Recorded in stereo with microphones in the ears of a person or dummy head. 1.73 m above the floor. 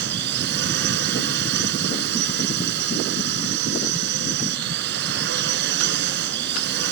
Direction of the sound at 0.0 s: 60° right (ahead or behind).